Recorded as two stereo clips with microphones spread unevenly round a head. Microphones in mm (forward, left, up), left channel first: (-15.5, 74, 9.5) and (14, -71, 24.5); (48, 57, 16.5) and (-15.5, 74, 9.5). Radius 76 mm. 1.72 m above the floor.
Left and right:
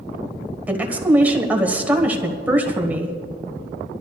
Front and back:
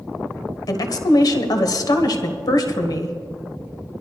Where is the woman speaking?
Straight ahead, 1.3 m.